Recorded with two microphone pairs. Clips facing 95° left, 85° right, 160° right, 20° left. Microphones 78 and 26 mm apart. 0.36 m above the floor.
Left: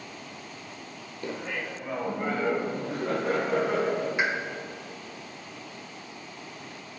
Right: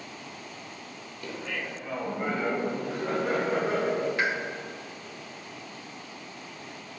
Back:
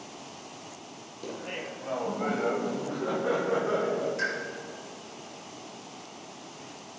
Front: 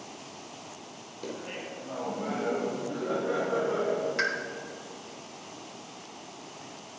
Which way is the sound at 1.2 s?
85° left.